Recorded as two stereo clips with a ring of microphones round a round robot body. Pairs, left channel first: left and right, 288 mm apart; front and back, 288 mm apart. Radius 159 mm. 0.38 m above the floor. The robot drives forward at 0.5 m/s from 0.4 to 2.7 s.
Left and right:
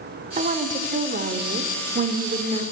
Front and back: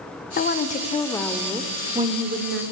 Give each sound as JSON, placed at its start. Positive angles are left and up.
{"t": 0.4, "sound": "a woman speaking", "azimuth_deg": -35, "distance_m": 1.0}